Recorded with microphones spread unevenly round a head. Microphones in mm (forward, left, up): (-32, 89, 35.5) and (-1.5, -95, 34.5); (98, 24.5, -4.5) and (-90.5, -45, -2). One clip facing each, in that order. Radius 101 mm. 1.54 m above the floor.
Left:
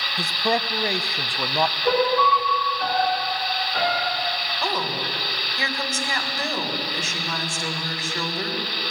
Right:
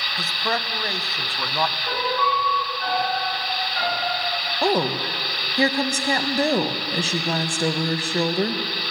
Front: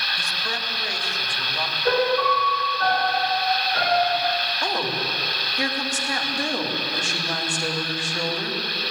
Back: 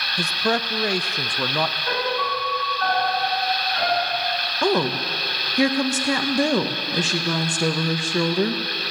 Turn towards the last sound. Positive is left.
turn(degrees=-140)